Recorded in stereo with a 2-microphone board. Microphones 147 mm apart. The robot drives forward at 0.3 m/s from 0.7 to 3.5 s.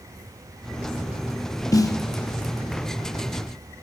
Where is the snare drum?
25° left (ahead or behind), 0.8 m; by 2.0 s 20° left (ahead or behind), 0.8 m.